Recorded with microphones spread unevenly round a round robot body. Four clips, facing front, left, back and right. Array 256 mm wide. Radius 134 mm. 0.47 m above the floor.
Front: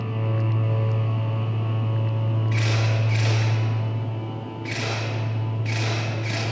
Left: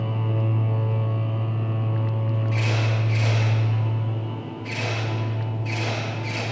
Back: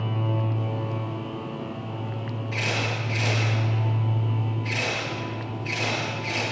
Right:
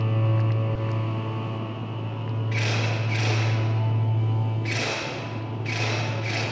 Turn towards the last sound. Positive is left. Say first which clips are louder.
# right 1 dB, back 1 dB
turn(degrees=-25)